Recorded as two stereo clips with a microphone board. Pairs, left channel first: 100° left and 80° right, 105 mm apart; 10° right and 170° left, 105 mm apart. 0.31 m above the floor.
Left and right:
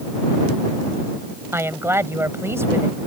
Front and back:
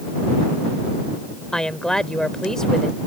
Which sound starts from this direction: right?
A woman speaking, at 1.5 s.